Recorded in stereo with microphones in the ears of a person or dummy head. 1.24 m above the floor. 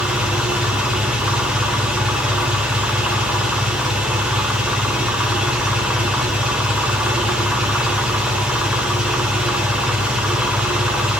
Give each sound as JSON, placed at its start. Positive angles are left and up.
{"t": 0.0, "sound": "an engine running", "side_deg": 0, "distance_m": 0.7}